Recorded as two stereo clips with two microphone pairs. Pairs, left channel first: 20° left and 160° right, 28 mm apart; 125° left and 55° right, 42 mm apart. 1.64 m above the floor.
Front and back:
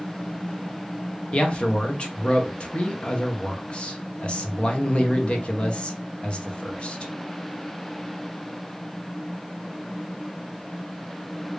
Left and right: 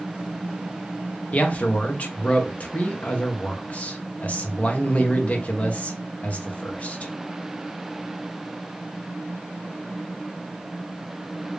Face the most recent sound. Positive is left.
turn(degrees=65)